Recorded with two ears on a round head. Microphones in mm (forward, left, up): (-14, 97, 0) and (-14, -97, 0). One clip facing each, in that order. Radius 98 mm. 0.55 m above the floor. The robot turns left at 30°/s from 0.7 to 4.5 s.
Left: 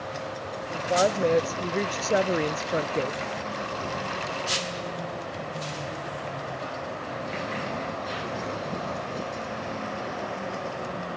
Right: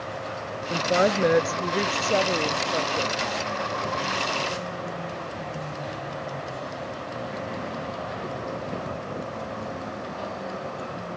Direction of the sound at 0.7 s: 145° right.